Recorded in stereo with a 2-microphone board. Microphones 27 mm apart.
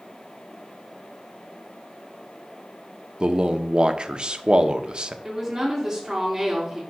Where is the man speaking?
35° right (ahead or behind), 0.6 m.